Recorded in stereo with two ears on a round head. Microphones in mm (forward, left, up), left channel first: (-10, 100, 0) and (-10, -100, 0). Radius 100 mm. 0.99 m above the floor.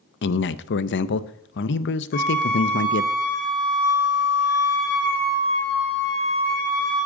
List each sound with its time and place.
0.2 s a man speaking: 55° left (ahead or behind), 0.6 m
2.1 s a flute: 45° left (ahead or behind), 3 m